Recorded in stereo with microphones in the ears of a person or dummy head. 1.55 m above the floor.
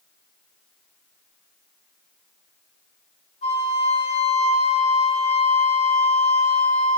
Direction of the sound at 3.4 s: 35° left (ahead or behind).